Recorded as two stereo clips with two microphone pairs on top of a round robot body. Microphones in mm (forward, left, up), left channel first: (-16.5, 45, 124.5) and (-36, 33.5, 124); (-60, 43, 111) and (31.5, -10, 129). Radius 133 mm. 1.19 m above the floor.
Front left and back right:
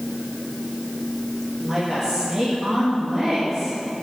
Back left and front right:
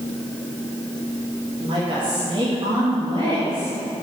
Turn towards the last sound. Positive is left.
turn(degrees=-75)